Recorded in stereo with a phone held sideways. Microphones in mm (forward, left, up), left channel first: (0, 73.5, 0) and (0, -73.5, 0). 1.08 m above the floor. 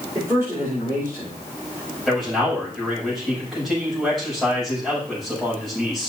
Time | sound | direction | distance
0.1 | a man speaking | 15° right (ahead or behind) | 5 m
2.1 | a man speaking | centre (ahead or behind) | 7 m